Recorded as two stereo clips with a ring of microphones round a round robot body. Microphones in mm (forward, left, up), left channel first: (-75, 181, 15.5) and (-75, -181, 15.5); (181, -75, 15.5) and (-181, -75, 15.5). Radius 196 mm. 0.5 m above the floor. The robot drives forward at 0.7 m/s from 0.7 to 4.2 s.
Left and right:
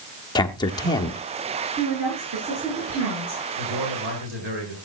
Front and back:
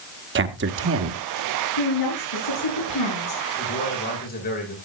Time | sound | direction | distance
0.3 | a man speaking | 160° left | 1.4 m
1.8 | a woman speaking | 30° right | 8.5 m
3.6 | a man speaking | 60° right | 9.5 m